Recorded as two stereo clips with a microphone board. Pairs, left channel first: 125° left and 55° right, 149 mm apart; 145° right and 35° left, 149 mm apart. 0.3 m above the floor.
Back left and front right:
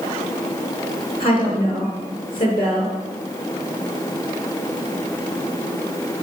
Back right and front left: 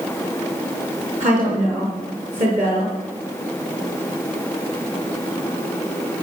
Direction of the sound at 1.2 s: 70° left.